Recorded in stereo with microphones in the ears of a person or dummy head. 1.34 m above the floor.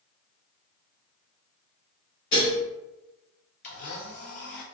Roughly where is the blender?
Left.